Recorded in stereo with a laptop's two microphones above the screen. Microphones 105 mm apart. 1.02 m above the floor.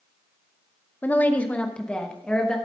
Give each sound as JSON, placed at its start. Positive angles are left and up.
{"t": 1.0, "sound": "a woman speaking", "side_deg": 20, "distance_m": 0.7}